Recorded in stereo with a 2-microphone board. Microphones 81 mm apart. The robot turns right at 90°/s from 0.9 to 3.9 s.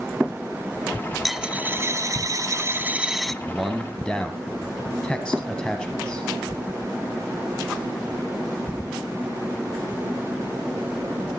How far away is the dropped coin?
About 0.5 m.